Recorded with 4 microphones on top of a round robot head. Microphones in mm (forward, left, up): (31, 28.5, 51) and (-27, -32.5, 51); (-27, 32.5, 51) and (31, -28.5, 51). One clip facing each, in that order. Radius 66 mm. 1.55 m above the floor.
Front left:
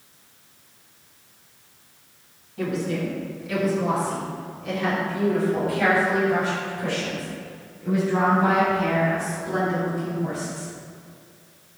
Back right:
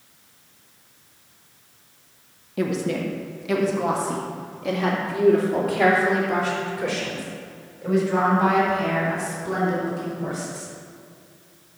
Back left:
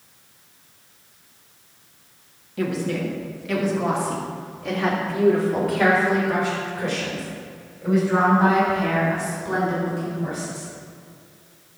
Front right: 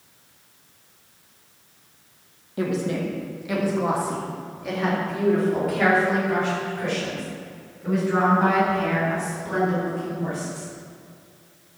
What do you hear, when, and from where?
2.6 s a woman speaking: 110° right, 1.4 m; by 10.7 s 145° right, 6 m